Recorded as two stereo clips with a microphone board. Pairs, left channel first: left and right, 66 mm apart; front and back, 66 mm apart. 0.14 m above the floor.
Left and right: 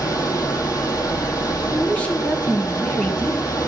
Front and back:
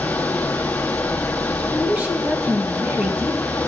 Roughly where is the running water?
Ahead left.